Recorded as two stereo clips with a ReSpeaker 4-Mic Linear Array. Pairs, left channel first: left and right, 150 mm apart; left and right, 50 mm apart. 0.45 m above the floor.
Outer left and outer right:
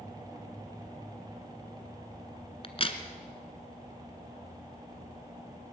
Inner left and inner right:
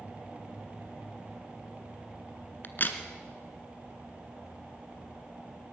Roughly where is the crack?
Left.